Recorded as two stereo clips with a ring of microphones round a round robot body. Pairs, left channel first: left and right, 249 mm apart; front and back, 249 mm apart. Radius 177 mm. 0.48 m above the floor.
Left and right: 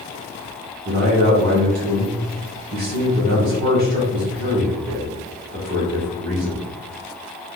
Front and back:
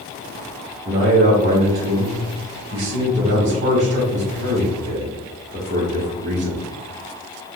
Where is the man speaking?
125° right, 1.0 m.